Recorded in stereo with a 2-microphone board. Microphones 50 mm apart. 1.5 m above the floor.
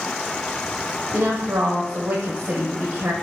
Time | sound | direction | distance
1.1 | a woman speaking | 65° right (ahead or behind) | 0.8 m